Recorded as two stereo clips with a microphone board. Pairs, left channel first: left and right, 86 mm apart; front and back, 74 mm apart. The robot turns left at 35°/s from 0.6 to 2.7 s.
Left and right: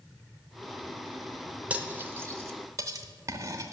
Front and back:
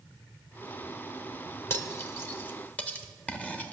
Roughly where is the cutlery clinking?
Ahead right.